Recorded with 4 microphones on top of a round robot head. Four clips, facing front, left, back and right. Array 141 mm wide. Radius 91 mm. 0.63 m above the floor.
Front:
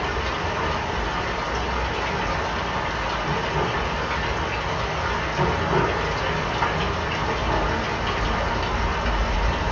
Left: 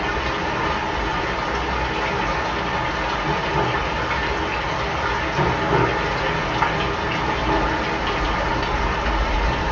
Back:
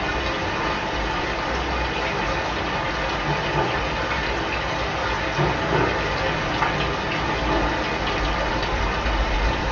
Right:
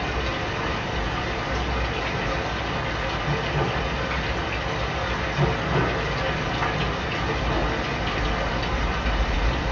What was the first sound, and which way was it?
Running water, 110° left.